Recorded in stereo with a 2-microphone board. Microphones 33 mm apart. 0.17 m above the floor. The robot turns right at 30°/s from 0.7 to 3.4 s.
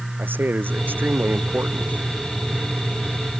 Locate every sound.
0.2 s a man speaking: 85° right; by 2.1 s 45° right